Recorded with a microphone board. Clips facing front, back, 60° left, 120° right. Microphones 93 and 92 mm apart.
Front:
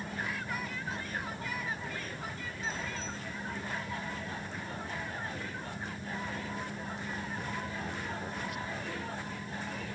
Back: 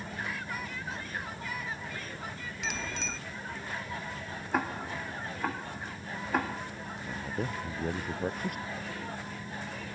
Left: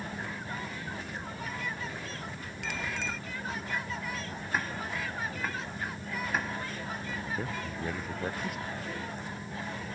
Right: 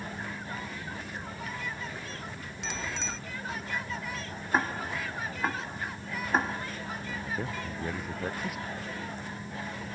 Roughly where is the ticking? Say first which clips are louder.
Back 7 dB, right 5 dB; behind.